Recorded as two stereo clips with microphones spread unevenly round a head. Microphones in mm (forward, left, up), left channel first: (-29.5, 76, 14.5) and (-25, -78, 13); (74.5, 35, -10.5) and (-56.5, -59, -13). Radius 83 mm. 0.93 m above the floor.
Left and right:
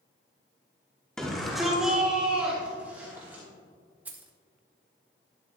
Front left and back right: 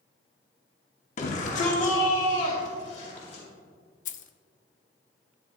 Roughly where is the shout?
Ahead.